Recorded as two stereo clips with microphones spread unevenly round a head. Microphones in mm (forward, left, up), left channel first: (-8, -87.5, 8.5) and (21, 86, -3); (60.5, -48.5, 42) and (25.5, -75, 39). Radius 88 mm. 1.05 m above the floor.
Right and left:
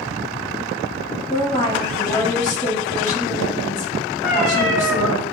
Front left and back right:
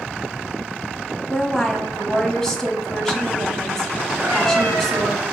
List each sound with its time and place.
1.3 s a woman speaking: 50° right, 0.9 m
4.2 s a cat meowing: straight behind, 1.5 m